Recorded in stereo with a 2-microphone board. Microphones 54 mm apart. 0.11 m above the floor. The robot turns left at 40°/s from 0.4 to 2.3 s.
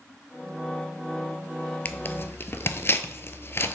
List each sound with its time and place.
1.9 s tearing paper: 35° left (ahead or behind), 0.5 m; by 3.7 s 45° left (ahead or behind), 0.5 m